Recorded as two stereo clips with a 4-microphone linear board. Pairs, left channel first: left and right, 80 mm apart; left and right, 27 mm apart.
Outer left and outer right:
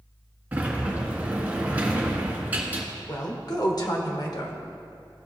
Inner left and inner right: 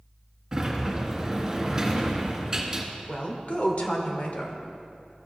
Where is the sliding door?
20° right (ahead or behind), 1.3 m.